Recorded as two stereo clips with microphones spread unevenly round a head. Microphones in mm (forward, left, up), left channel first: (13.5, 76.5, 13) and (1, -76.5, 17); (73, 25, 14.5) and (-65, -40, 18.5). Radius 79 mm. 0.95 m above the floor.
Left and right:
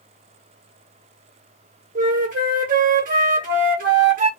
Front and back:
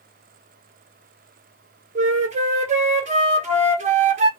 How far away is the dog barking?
No dog barking in this recording.